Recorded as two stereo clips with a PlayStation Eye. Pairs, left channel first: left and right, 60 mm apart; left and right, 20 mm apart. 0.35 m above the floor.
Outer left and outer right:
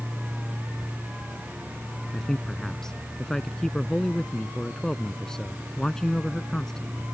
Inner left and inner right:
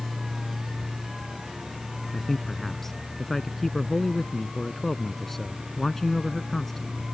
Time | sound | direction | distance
2.1 | a man speaking | 10° left (ahead or behind) | ?